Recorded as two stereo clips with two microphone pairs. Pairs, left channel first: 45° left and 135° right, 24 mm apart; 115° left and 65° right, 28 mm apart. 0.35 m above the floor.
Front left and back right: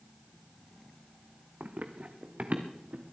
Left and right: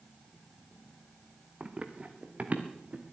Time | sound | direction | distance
1.6 | running footsteps | 115° right | 1.4 m